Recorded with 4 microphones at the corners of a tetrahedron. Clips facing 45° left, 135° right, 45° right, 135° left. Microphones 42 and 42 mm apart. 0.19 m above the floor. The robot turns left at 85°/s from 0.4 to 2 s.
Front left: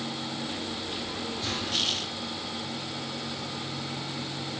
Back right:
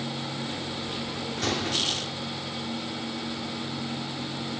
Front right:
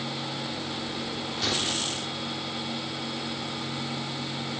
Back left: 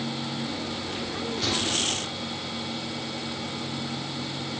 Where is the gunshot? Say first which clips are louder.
Back right 4 dB, back left 1 dB; 130° right, 3 m; by 2.1 s 175° left, 3 m.